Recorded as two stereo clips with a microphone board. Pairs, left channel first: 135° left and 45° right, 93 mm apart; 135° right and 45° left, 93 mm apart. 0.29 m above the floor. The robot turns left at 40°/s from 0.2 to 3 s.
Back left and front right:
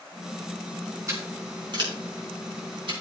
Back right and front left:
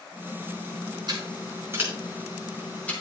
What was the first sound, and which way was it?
Scissors, 10° left.